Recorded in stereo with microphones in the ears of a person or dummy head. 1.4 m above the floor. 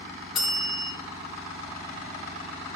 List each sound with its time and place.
0.3 s a bell: 5° left (ahead or behind), 3.5 m